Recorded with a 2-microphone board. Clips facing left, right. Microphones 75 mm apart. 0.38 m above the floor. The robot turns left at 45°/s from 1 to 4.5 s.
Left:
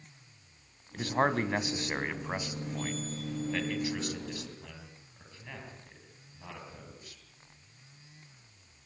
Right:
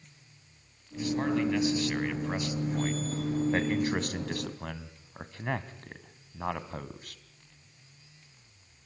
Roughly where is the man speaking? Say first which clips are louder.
Even; left.